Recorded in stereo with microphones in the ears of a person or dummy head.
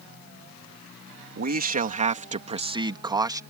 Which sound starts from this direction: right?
A man speaking, at 1.4 s.